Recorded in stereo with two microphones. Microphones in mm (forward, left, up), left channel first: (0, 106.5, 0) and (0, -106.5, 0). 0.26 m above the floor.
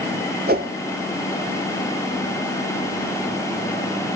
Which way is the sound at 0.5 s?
50° right (ahead or behind).